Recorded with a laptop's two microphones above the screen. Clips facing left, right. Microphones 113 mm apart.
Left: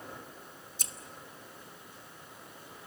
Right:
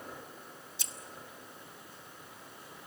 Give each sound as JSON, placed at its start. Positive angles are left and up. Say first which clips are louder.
{"t": 0.8, "sound": "scissors", "louder": "left 1 dB", "side_deg": 45, "distance_m": 0.9}